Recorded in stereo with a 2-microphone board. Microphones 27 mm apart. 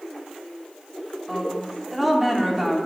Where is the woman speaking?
10° right (ahead or behind), 3 m.